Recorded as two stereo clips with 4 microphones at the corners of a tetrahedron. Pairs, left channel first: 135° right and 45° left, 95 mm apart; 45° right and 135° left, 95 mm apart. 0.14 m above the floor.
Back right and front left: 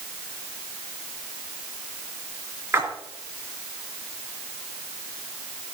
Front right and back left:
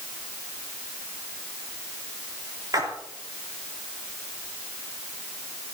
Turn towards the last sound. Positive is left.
turn(degrees=100)